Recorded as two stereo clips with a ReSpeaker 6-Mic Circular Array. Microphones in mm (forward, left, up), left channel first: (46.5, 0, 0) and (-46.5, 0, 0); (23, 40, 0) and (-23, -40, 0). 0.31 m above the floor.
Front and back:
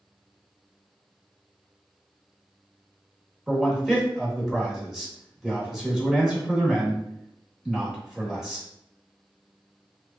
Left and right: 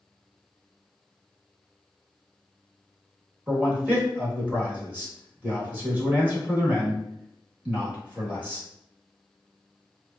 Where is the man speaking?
115° right, 1.0 m.